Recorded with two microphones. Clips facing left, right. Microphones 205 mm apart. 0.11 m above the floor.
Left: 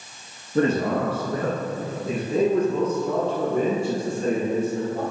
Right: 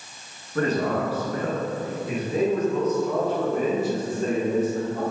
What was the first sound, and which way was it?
A man speaking, 25° left (ahead or behind).